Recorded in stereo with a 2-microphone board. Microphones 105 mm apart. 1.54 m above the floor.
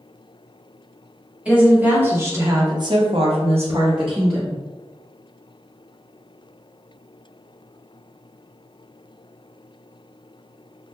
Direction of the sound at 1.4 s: 10° right (ahead or behind).